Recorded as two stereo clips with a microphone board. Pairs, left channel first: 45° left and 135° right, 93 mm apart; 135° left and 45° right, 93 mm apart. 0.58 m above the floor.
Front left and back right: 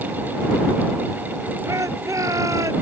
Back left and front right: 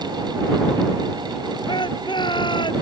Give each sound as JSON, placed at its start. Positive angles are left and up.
{"t": 1.7, "sound": "a shout", "azimuth_deg": 170}